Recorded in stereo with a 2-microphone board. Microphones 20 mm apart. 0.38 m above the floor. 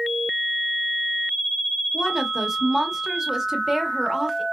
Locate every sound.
1.9 s a woman speaking: 20° right (ahead or behind), 0.8 m